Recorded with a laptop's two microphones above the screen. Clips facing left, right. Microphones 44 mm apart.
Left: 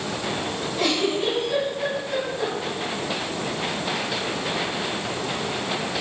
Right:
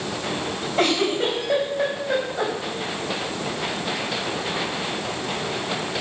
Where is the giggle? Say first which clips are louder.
Right 3 dB; 75° right (ahead or behind), 4.5 m.